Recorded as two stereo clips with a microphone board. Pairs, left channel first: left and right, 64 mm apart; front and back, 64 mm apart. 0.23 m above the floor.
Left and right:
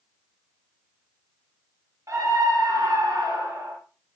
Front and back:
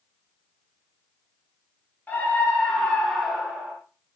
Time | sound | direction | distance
2.1 | a scream | 60° right | 4 m